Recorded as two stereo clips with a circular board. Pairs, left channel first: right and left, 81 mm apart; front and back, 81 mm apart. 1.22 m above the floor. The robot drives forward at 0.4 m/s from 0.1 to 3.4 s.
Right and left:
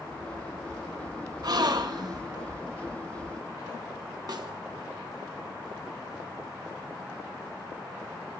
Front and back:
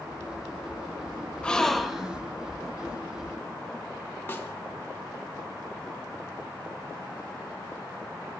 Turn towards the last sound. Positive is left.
turn(degrees=60)